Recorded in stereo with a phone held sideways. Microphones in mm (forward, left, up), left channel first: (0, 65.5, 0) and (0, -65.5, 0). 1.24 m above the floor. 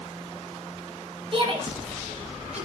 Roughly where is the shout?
Right.